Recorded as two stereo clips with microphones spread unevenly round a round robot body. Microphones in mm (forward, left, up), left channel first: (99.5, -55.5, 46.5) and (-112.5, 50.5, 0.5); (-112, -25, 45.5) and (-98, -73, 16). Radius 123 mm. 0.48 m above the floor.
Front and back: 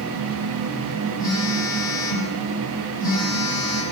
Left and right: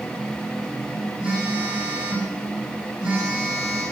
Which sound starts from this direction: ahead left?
A phone buzzing, at 1.2 s.